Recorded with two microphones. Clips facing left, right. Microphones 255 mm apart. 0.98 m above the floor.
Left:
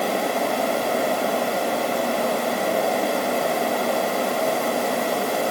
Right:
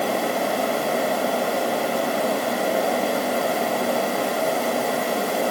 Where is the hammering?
I don't hear hammering.